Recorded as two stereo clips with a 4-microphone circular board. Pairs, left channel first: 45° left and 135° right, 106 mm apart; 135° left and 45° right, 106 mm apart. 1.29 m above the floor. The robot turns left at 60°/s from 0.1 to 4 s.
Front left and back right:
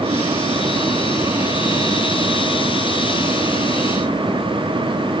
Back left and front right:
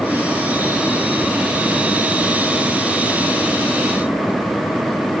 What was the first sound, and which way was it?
Only background noise.